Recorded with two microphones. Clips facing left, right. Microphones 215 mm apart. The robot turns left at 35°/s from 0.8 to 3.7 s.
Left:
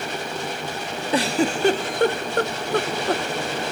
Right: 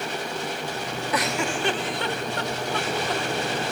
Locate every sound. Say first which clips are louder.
1.1 s a giggle: left 7 dB; 30° left (ahead or behind), 0.7 m; by 3.2 s 50° left (ahead or behind), 0.7 m